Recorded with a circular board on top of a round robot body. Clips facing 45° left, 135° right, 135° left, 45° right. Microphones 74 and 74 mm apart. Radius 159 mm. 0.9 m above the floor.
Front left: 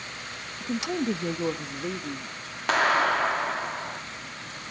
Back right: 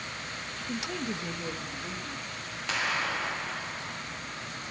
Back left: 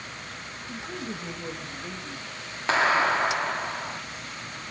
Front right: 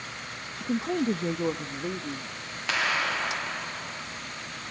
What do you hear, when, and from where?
0.6 s a woman speaking: 20° right, 0.8 m; by 2.4 s 10° left, 1.9 m
2.7 s a clap: 80° left, 2 m